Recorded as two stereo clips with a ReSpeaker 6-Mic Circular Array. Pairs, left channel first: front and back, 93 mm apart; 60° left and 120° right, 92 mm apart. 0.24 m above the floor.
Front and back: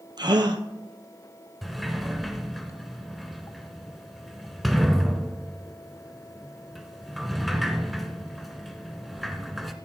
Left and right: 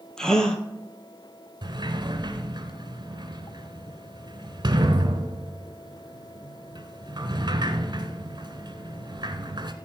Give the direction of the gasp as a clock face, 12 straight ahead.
7 o'clock.